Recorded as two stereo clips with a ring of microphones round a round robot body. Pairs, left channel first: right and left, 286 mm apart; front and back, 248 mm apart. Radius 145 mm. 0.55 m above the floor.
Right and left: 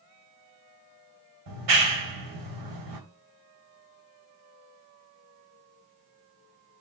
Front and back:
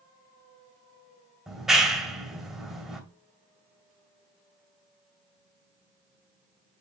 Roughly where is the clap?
Left.